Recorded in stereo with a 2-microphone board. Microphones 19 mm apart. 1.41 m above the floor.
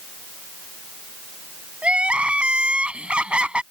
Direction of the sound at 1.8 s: 70° right (ahead or behind).